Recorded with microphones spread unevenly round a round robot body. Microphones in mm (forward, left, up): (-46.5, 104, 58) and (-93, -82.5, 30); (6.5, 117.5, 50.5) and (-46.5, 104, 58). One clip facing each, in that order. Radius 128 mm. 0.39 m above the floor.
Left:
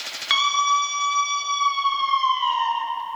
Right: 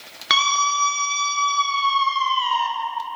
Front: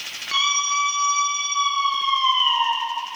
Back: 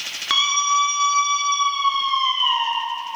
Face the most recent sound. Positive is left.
turn(degrees=-125)